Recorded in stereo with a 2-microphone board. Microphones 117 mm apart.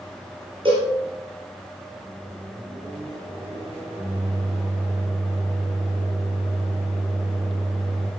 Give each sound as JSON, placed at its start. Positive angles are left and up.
{"t": 0.7, "sound": "a cowbell", "side_deg": -45, "distance_m": 7.0}
{"t": 2.0, "sound": "a microwave", "side_deg": -20, "distance_m": 6.5}